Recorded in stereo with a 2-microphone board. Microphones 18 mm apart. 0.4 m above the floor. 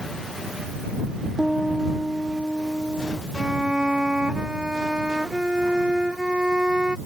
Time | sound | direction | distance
1.4 | a piano | 30° right (ahead or behind) | ?
3.4 | a violin | 50° right (ahead or behind) | ?